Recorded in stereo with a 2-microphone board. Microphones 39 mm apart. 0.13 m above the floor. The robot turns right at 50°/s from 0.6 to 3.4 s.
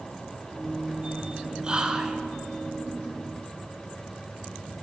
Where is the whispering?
25° right (ahead or behind), 1.1 m; by 2.2 s 15° right (ahead or behind), 1.1 m.